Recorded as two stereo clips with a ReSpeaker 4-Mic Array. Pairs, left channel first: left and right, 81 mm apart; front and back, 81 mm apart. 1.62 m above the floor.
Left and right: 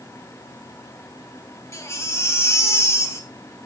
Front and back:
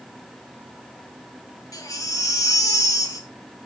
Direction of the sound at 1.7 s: 40° left.